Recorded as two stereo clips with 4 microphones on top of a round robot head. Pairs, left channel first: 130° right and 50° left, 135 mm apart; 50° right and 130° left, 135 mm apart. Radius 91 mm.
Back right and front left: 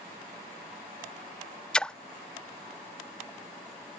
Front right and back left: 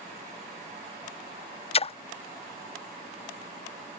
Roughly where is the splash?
Ahead right.